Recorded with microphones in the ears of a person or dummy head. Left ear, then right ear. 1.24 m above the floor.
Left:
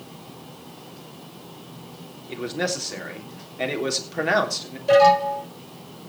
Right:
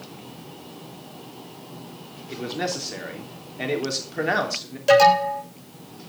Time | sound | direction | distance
2.3 | a man speaking | 10° left (ahead or behind) | 3 m
4.9 | an alarm | 65° right (ahead or behind) | 7.5 m